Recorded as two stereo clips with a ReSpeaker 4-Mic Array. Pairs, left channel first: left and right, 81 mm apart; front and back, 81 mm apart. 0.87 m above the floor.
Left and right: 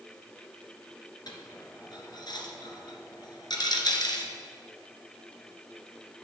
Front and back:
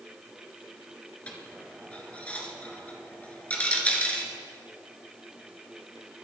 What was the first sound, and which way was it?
A dropped coin, 70° left.